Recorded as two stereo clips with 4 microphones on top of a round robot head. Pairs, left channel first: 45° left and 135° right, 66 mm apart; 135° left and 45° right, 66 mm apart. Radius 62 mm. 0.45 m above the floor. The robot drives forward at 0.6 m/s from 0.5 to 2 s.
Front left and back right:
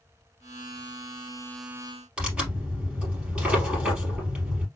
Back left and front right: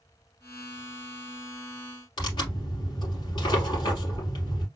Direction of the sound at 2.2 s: 150° left.